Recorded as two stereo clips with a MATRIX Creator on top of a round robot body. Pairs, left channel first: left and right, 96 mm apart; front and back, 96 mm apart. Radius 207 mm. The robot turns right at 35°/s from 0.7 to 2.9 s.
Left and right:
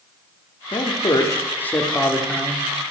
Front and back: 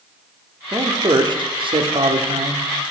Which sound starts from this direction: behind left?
A man speaking, at 0.7 s.